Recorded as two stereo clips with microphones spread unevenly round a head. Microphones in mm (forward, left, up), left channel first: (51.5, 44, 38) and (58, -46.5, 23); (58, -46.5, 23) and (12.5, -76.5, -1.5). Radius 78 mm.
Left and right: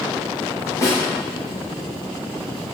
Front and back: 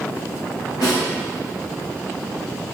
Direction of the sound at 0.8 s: 40° left.